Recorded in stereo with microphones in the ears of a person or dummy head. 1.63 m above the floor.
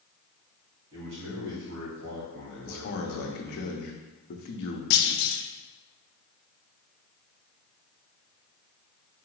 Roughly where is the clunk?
Left.